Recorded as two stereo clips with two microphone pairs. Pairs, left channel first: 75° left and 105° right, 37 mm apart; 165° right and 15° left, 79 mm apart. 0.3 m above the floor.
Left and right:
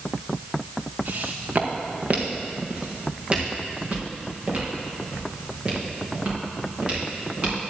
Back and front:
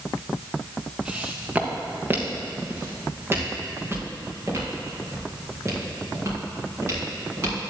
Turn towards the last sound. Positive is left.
turn(degrees=-40)